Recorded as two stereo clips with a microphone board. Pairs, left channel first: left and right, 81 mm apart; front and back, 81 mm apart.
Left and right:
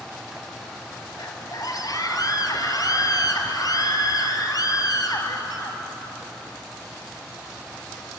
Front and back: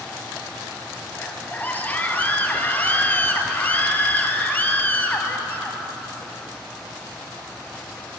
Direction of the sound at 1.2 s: 65° left.